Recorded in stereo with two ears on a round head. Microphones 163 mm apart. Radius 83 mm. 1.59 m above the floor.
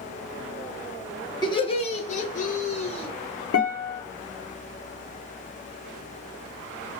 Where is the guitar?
85° left, 0.7 m.